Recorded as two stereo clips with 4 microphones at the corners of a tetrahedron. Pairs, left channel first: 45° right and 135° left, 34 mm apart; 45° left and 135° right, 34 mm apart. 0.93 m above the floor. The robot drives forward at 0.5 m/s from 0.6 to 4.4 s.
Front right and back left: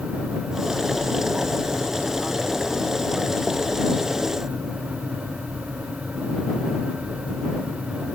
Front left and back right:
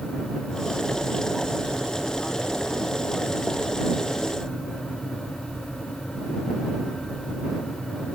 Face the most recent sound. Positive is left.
No sound to turn to.